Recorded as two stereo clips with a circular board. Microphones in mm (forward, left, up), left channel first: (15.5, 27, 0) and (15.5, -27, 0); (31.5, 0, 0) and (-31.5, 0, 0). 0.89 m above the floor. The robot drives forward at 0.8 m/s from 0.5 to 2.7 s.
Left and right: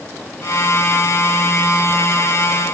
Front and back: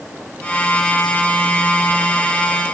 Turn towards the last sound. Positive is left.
No sound to turn to.